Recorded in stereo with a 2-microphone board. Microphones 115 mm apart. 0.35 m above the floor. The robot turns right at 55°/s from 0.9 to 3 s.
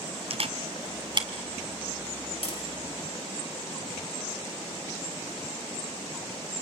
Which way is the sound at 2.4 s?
55° left (ahead or behind).